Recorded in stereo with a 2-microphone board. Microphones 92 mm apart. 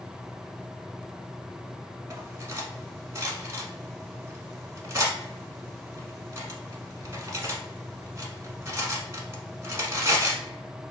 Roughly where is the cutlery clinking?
Right.